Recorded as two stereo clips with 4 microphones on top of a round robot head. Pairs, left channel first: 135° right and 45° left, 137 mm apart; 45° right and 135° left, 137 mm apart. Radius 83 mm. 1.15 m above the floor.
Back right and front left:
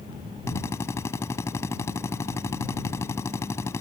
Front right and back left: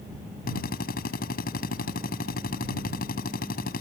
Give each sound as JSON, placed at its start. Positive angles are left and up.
{"t": 0.5, "sound": "a drill", "azimuth_deg": -65}